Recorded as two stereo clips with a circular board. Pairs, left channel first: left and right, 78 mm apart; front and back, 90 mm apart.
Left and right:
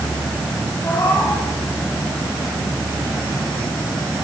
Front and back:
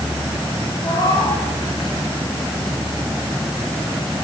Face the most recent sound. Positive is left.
turn(degrees=35)